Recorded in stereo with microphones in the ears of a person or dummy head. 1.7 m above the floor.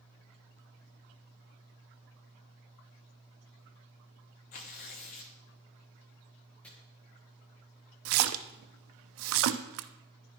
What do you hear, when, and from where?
4.5 s tearing paper: 40° left (ahead or behind), 0.8 m
6.6 s chopping: 5° left (ahead or behind), 1.7 m
8.1 s a splash: 75° right (ahead or behind), 0.5 m